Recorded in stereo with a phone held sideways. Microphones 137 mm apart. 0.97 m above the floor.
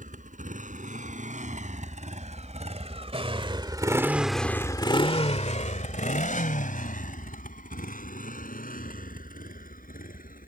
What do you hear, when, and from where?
0.0 s a motorcycle: 70° right (ahead or behind); by 10.5 s 90° left